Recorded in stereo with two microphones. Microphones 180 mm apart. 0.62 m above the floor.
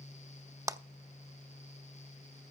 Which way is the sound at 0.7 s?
15° right (ahead or behind).